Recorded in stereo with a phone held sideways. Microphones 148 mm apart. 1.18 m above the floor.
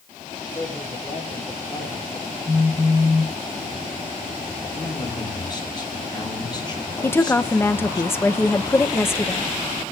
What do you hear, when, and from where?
0.5 s a man speaking: 15° left (ahead or behind), 4 m; by 2.4 s 30° left (ahead or behind), 2.5 m
2.5 s a phone buzzing: 25° right (ahead or behind), 2.5 m
4.7 s a man speaking: 30° left (ahead or behind), 3.5 m
7.0 s a woman speaking: 15° left (ahead or behind), 1.1 m